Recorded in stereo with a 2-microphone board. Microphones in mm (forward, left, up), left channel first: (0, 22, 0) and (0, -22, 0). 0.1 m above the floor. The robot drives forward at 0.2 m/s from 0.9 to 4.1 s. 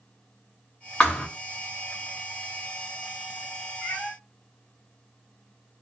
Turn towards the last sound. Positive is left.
turn(degrees=20)  # may be behind; listen again after turning